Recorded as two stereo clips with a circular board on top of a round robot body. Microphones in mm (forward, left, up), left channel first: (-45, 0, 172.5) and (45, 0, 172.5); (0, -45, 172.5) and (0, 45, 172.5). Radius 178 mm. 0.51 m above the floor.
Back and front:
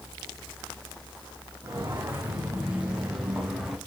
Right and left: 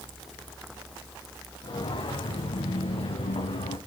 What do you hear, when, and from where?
1.6 s footsteps: 60° right, 3.5 m; by 3.8 s 85° right, 3 m